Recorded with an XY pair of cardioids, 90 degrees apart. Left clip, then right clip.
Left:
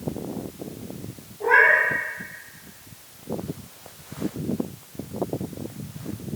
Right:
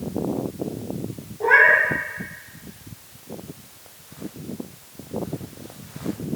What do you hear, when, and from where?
1.4 s a cat meowing: 50° right, 2.5 m